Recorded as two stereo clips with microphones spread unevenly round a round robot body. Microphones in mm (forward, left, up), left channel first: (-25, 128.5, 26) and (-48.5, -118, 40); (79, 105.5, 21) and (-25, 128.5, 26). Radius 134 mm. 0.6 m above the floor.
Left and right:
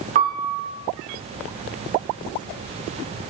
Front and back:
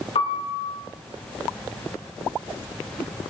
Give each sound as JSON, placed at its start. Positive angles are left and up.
{"t": 0.1, "sound": "a piano", "azimuth_deg": -40, "distance_m": 2.0}